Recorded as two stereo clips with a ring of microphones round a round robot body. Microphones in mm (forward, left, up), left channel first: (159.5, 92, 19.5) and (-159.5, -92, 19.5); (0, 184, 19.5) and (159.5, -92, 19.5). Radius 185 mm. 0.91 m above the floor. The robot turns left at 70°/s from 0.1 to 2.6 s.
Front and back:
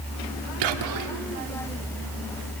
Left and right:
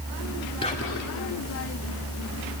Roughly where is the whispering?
Behind.